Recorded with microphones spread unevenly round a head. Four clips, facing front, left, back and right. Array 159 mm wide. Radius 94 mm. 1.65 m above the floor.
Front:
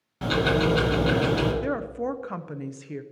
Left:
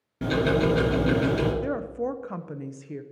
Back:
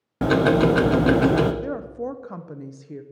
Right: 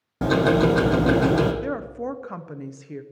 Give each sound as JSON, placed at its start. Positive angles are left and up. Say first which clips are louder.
{"t": 0.2, "sound": "ticking", "louder": "right 4 dB, back 6 dB", "azimuth_deg": -170, "distance_m": 0.7}
{"t": 1.6, "sound": "a woman speaking", "louder": "even, front 1 dB", "azimuth_deg": -55, "distance_m": 0.7}